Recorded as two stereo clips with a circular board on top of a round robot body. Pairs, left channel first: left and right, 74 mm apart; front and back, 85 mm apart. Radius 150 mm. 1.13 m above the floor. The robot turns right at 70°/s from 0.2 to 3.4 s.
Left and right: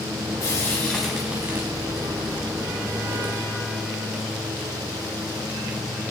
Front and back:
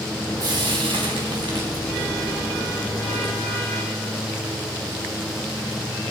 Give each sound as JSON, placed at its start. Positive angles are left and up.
{"t": 0.4, "sound": "frying", "azimuth_deg": 135, "distance_m": 4.0}